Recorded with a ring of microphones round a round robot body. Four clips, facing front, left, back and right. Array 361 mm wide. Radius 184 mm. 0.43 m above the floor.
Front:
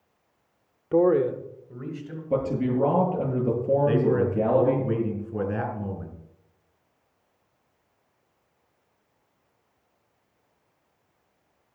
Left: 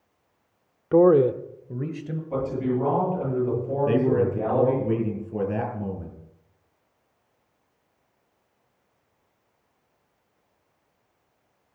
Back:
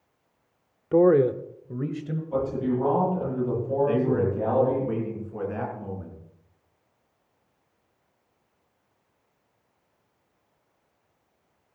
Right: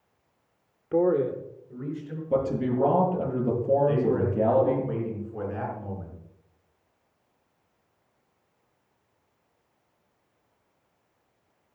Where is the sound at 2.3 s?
30° right, 10 m.